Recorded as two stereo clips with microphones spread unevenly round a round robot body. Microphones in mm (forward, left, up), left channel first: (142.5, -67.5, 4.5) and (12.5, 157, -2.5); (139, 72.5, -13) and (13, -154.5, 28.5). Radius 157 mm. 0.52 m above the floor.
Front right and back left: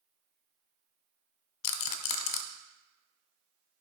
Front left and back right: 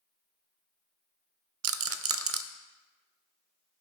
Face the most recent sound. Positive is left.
turn(degrees=-80)